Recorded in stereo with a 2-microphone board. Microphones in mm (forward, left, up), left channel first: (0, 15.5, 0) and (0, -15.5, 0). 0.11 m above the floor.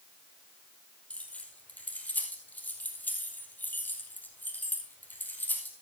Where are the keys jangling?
45° left (ahead or behind), 3 m; by 5.7 s 60° left (ahead or behind), 3 m.